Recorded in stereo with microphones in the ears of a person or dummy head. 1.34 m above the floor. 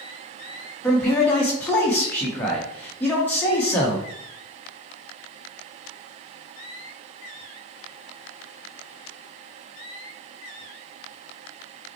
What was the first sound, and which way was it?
A man speaking, 10° left (ahead or behind).